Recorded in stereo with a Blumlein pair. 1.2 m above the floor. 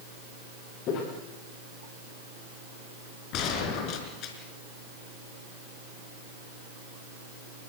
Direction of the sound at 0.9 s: 40° left.